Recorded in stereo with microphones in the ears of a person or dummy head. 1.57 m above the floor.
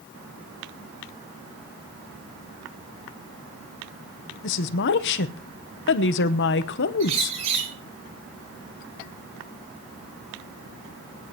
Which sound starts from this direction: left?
A woman speaking, at 4.4 s.